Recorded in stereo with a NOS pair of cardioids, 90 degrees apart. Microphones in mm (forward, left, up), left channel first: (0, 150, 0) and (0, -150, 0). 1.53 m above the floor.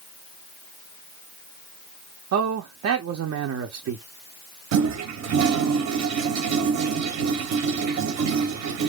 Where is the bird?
I don't hear a bird.